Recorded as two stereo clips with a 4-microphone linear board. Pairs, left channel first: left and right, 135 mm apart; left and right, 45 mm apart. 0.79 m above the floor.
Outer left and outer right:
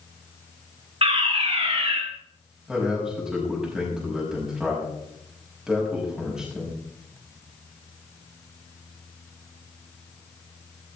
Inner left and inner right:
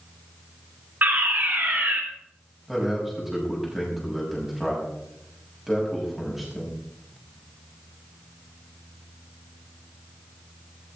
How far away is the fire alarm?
About 2.5 m.